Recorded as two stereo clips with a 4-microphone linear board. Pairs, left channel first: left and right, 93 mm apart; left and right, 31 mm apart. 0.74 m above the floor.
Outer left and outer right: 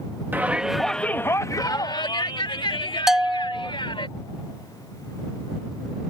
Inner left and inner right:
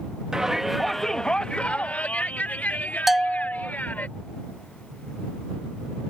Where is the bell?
5° right (ahead or behind).